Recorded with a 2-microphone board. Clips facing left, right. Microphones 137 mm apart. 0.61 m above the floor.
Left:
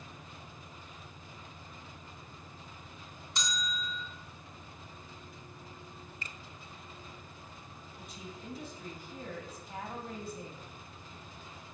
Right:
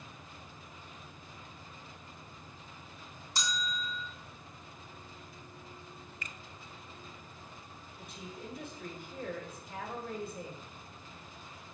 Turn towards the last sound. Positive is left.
turn(degrees=-60)  # may be behind; listen again after turning